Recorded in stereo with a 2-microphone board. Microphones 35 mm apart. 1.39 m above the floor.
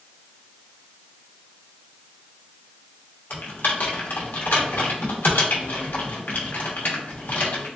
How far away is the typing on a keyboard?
About 0.9 m.